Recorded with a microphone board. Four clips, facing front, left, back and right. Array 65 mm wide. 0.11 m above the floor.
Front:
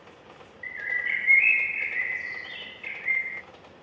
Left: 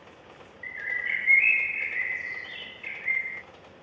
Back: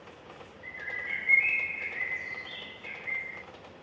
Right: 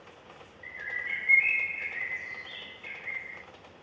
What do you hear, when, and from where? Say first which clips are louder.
0.6 s a bird: left 5 dB, front 8 dB; 35° left, 0.8 m